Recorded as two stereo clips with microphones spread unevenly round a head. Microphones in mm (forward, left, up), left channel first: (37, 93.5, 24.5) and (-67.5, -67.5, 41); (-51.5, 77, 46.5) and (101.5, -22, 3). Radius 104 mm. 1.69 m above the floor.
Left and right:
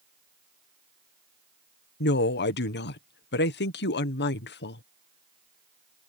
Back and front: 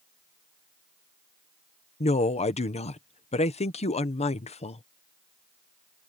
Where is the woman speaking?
90° left.